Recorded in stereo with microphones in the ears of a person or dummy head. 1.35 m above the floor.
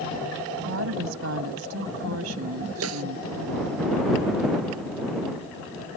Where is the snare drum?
80° right.